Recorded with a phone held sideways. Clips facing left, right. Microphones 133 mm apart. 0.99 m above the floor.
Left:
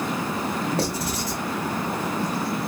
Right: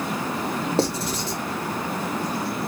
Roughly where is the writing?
Right.